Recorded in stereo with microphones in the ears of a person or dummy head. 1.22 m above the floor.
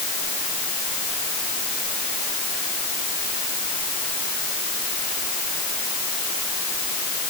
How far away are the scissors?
I don't hear scissors.